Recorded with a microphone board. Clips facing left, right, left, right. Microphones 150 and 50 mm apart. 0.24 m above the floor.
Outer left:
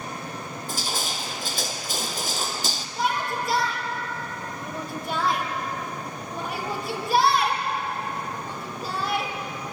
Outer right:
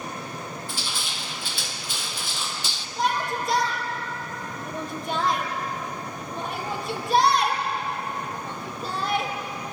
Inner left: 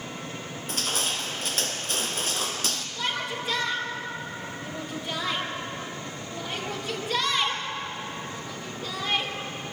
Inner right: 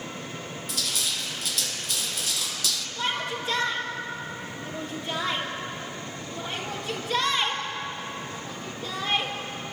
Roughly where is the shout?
Centre.